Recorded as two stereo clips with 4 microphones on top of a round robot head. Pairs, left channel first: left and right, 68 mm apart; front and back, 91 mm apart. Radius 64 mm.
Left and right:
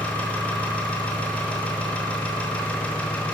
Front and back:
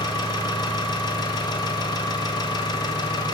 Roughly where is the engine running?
Ahead.